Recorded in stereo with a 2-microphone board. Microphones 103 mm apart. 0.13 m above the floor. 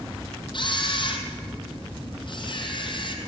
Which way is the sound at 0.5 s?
55° left (ahead or behind).